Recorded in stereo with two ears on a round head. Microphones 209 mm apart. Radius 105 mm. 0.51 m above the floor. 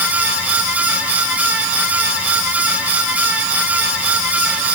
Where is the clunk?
No clunk in this recording.